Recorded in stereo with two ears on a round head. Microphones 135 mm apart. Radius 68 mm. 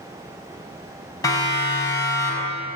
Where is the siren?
20° left (ahead or behind), 7 m; by 2.6 s 15° left (ahead or behind), 7 m.